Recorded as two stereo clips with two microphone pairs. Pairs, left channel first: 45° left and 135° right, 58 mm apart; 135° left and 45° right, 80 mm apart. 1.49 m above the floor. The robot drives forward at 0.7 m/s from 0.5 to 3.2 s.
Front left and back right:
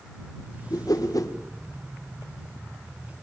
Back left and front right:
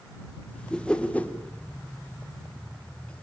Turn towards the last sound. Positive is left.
turn(degrees=115)